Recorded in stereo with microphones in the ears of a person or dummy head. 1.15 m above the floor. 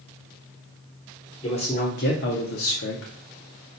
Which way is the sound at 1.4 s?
25° left (ahead or behind).